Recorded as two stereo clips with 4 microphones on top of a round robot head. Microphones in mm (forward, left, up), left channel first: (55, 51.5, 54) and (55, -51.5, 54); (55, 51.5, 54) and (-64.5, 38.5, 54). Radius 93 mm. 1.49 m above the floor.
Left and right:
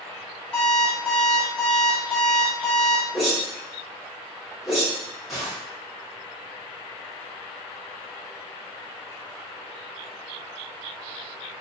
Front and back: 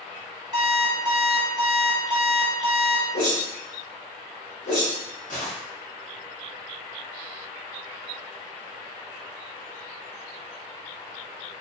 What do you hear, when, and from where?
0.5 s an alarm clock: 170° left, 0.6 m
3.1 s a whoosh: straight ahead, 0.9 m